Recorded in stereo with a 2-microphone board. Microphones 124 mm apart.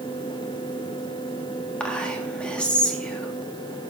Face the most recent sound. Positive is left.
turn(degrees=10)  # may be behind; listen again after turning